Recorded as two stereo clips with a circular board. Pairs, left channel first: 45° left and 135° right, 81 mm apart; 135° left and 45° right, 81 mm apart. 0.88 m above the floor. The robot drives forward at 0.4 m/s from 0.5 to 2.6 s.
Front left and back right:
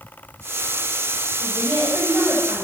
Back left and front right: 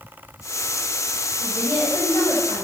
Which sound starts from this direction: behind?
A woman speaking, at 1.4 s.